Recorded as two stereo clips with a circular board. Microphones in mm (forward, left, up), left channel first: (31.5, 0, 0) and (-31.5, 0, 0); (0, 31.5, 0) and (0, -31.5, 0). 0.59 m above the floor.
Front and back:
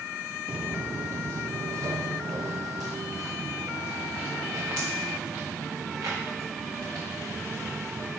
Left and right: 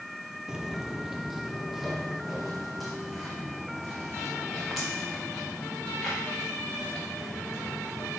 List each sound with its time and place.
0.5 s footsteps: 140° right, 0.6 m; by 8.2 s straight behind, 4.5 m